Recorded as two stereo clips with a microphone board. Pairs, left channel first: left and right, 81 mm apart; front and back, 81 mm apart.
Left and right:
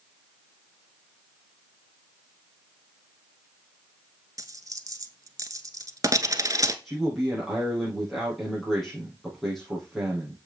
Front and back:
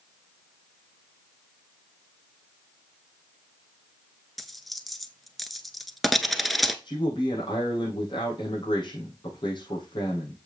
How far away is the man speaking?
About 5 m.